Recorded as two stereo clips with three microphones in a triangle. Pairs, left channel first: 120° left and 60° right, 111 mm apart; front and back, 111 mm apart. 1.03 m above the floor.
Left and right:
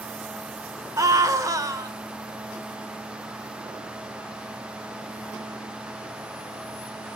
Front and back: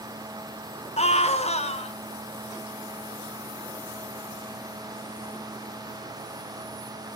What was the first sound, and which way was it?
A scream, 5° right.